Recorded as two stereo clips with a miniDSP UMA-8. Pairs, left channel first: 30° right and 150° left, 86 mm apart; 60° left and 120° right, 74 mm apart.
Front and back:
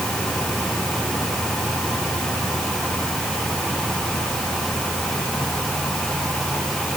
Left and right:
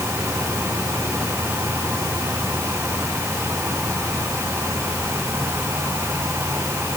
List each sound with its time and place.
Only background noise.